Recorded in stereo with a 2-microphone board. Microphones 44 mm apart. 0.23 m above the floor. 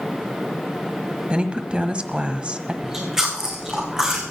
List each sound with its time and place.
1.3 s a woman speaking: 25° right (ahead or behind), 1.2 m
2.8 s chewing: 10° right (ahead or behind), 3.5 m